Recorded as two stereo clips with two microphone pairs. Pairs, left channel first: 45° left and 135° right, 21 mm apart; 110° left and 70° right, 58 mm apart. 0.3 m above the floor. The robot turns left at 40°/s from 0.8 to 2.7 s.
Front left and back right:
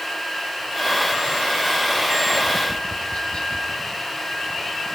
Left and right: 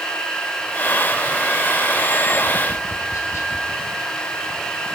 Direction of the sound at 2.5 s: 95° left.